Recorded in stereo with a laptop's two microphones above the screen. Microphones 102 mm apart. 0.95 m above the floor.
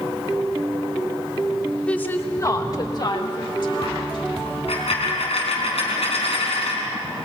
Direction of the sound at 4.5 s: 75° left (ahead or behind).